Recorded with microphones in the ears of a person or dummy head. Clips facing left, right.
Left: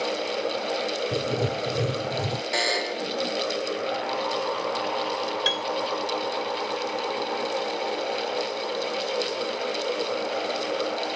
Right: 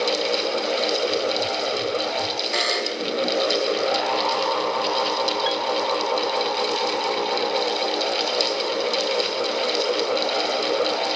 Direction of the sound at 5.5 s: 40° left (ahead or behind).